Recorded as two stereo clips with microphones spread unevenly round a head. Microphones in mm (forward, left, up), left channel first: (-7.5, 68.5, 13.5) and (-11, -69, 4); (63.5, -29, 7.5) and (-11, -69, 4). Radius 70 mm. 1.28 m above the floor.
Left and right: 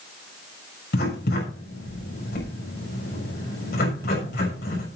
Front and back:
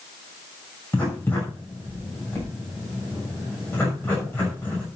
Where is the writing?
105° left, 6.5 m.